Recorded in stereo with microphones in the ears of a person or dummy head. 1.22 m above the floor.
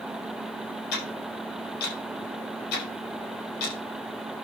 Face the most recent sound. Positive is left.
turn(degrees=60)  # may be behind; listen again after turning